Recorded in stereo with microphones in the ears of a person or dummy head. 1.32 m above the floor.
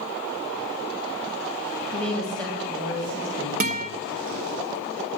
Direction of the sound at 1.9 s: 25° right (ahead or behind).